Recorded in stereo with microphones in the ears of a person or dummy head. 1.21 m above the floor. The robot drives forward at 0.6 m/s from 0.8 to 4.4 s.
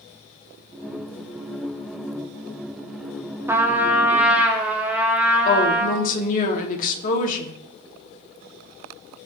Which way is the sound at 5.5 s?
55° left (ahead or behind).